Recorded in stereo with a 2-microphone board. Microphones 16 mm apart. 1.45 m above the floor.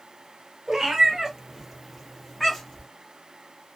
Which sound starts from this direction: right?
A cat meowing, at 0.7 s.